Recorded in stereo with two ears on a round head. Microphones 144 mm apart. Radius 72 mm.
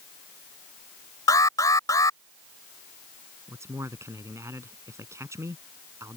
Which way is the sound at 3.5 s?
20° right (ahead or behind).